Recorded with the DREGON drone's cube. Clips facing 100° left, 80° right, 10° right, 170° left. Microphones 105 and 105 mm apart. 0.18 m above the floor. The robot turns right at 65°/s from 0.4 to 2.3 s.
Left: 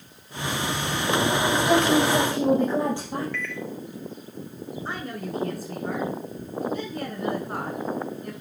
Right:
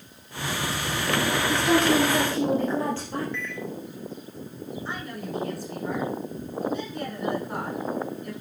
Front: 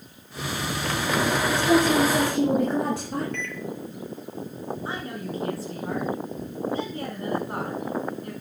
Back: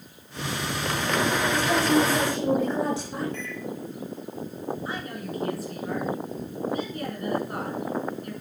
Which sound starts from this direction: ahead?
A microwave, at 3.3 s.